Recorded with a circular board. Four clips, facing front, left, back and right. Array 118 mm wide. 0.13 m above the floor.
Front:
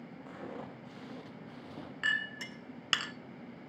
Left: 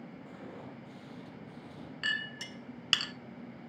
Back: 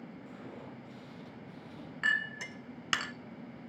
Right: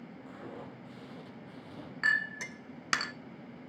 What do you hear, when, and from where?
0.3 s footsteps: 5° right, 7 m; by 1.9 s 15° right, 6.5 m
2.0 s a clink: 105° right, 0.8 m